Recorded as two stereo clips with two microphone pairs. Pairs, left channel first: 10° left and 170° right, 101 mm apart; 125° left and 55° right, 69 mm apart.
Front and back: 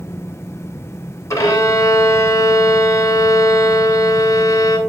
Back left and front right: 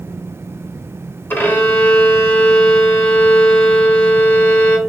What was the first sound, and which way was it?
A violin, 70° left.